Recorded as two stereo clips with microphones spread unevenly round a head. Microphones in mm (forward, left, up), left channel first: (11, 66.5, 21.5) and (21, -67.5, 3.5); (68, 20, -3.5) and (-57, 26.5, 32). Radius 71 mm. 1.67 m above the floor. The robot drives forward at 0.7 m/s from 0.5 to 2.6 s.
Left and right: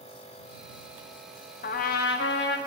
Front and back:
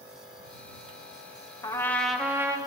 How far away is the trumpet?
About 0.8 m.